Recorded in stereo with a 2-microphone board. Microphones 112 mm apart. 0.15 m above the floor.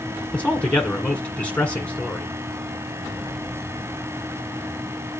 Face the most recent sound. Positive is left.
turn(degrees=10)  # may be behind; listen again after turning